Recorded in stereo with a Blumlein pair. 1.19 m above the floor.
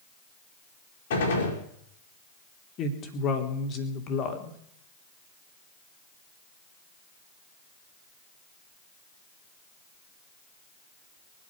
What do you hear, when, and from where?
1.1 s a gunshot: 60° left, 4.5 m
2.8 s a woman speaking: 30° left, 3 m